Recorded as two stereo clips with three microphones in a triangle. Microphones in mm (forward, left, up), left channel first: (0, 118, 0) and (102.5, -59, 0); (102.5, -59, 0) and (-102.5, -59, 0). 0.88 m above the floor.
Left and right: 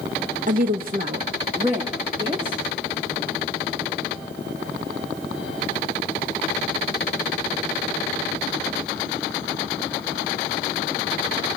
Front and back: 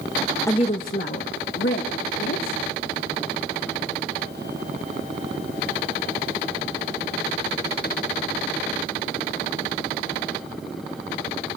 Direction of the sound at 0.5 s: 70° right.